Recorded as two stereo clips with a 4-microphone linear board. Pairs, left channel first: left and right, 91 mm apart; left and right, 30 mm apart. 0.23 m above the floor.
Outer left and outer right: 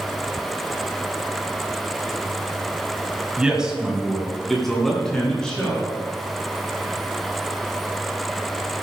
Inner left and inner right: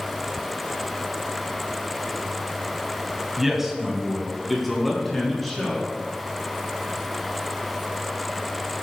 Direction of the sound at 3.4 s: 10° right (ahead or behind).